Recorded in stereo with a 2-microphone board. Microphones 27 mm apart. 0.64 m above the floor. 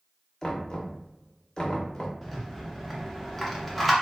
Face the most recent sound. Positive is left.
turn(degrees=5)  # may be behind; listen again after turning